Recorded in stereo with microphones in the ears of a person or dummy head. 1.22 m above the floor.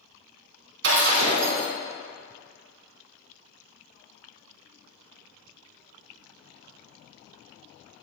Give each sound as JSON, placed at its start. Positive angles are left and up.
{"t": 0.8, "sound": "breaking glass", "side_deg": -75, "distance_m": 2.0}